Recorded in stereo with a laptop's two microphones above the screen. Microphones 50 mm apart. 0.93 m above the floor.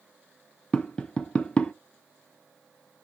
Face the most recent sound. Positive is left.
turn(degrees=20)  # may be behind; listen again after turning